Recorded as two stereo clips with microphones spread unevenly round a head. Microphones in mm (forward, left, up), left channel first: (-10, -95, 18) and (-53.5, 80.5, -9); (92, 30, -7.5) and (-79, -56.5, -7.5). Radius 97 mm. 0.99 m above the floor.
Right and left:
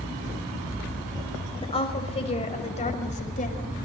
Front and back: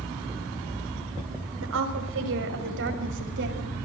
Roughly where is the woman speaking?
Behind right.